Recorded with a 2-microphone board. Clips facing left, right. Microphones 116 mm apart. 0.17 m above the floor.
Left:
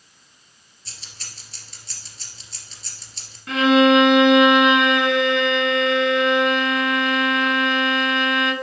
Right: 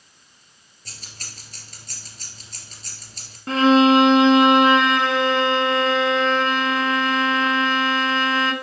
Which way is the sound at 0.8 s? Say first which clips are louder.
Right 2 dB; 50° right (ahead or behind).